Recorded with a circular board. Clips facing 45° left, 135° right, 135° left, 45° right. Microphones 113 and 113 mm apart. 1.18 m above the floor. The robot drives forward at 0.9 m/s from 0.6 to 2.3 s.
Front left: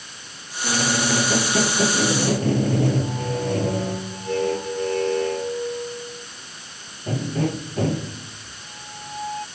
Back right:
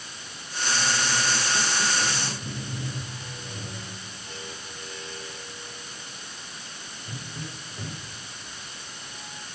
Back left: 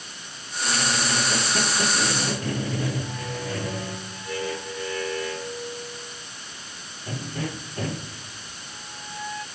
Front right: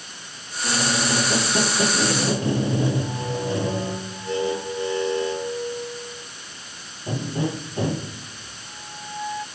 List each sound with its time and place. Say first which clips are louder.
0.6 s a squeak: front left 6 dB, front right 3 dB; 20° left